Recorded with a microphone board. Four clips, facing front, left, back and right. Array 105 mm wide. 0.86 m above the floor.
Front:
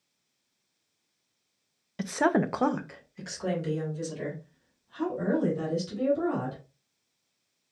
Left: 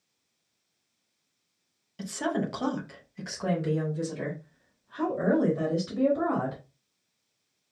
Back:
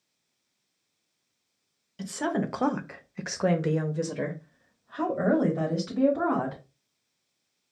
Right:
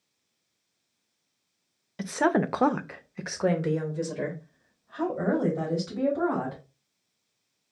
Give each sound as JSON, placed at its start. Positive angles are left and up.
{"t": 2.0, "sound": "a woman speaking", "azimuth_deg": -35, "distance_m": 0.6}